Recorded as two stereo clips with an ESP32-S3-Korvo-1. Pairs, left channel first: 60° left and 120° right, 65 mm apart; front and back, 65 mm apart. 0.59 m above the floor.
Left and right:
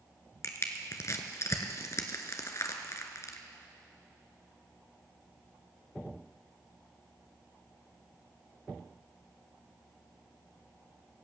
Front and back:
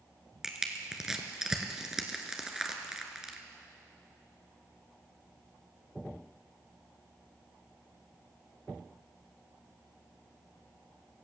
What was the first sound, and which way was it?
Crushing, 100° left.